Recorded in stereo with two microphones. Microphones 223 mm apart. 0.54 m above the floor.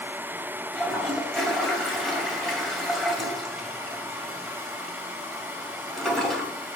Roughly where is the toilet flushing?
Centre.